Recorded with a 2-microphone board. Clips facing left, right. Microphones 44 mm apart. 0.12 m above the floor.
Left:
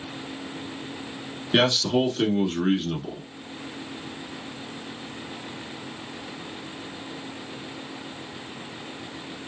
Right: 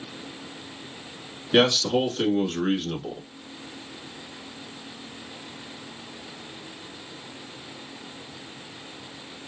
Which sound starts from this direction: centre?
A man speaking, at 1.5 s.